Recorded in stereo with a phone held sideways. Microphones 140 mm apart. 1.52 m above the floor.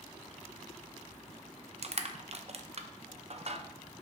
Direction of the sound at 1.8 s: 50° right (ahead or behind).